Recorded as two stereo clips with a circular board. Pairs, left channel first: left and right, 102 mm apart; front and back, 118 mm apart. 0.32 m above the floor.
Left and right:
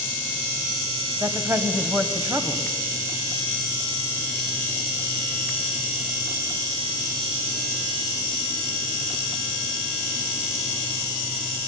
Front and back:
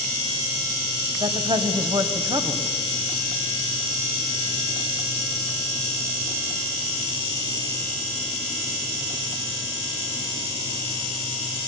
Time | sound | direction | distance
1.2 | a woman speaking | 150° right | 1.7 m